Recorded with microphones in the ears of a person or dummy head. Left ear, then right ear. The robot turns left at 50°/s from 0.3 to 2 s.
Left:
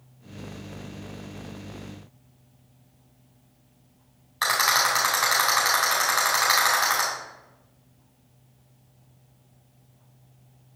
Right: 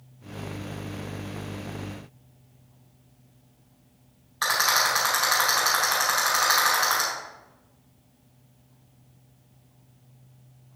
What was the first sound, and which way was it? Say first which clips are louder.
A rattle: left 1 dB; 20° left (ahead or behind).